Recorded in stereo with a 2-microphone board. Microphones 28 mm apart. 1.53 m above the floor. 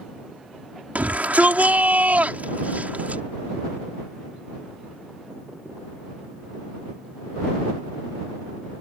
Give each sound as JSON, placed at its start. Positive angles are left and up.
{"t": 0.9, "sound": "a shout", "side_deg": -60}